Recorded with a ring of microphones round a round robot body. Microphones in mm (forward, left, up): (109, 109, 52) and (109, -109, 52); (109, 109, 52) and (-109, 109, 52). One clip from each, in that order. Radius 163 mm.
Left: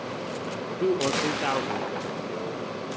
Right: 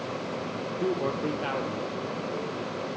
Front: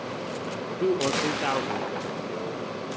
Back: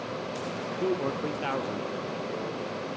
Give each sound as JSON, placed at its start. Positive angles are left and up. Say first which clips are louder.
{"t": 0.8, "sound": "a man speaking", "louder": "left 5 dB, front 5 dB", "azimuth_deg": 45, "distance_m": 1.1}